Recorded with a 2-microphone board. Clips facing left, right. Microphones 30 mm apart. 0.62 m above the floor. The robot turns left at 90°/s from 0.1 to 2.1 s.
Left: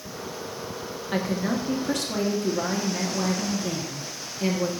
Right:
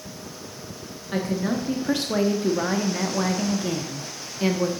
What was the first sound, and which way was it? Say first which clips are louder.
A woman speaking: right 1 dB; 15° left (ahead or behind).